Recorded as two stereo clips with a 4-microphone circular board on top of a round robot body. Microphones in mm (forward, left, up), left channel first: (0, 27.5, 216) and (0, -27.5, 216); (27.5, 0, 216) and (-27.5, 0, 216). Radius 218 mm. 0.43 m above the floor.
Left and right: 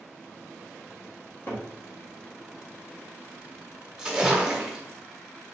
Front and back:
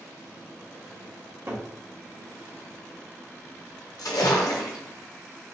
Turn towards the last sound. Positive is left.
turn(degrees=-10)